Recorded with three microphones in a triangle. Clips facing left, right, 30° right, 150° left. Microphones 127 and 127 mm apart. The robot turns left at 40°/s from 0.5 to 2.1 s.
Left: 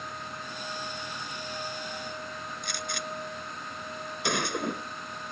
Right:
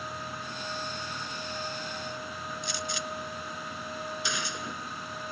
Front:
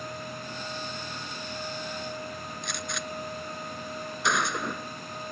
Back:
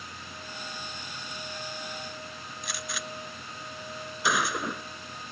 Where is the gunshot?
65° left.